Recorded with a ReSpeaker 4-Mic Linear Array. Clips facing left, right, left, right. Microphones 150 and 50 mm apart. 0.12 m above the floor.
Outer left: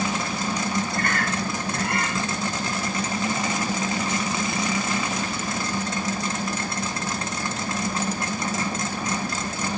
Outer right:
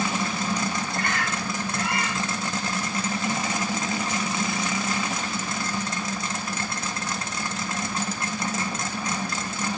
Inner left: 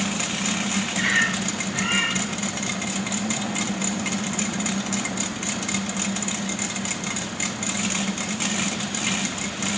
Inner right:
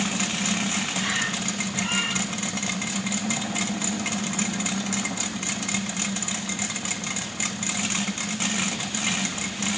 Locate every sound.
0.9 s a bird: 50° left (ahead or behind), 1.7 m